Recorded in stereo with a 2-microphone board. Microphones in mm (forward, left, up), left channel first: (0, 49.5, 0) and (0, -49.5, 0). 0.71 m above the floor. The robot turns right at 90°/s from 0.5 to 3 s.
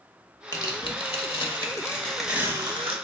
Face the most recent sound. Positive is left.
turn(degrees=-105)